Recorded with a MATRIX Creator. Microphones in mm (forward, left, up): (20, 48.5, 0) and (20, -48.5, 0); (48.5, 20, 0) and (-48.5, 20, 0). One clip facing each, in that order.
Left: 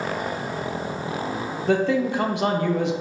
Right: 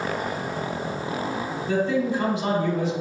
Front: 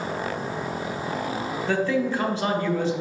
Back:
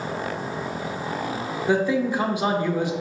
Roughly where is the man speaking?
Left.